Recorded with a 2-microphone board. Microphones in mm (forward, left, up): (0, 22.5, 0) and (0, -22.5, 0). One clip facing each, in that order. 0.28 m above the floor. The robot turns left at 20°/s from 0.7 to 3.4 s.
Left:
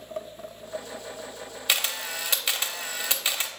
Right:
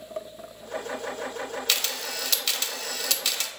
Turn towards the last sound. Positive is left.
turn(degrees=20)  # may be behind; listen again after turning